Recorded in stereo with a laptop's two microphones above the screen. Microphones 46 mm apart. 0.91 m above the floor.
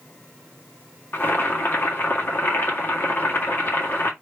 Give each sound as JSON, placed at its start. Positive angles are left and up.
{"t": 1.1, "sound": "boiling", "side_deg": 45, "distance_m": 1.8}